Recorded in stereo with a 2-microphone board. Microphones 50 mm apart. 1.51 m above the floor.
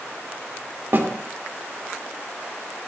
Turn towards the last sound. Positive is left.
turn(degrees=-50)  # may be behind; listen again after turning